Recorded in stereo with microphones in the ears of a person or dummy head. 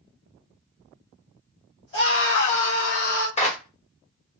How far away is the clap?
About 1.2 m.